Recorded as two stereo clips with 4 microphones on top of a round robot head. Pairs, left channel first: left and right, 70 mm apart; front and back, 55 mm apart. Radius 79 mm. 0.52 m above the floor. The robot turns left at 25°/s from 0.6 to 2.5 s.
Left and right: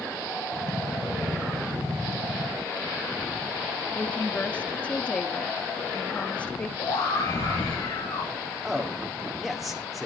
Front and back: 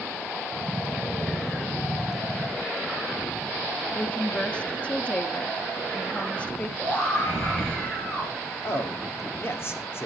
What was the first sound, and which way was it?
A woman speaking, 40° left.